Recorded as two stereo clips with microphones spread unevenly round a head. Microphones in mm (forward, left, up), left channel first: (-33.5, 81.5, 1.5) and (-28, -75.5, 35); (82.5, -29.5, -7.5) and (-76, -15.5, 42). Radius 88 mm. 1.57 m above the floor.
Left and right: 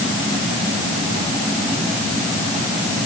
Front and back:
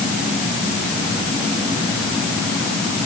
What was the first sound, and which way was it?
Only background noise.